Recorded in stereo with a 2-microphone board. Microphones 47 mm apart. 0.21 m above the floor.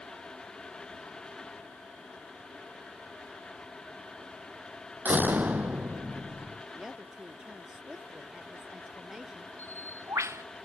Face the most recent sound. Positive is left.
turn(degrees=-85)